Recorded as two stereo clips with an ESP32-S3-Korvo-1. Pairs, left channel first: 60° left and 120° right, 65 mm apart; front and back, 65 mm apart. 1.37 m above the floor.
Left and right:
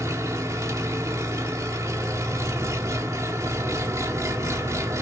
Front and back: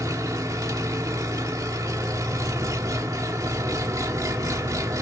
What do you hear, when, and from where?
0.0 s an engine running: 155° right, 1.7 m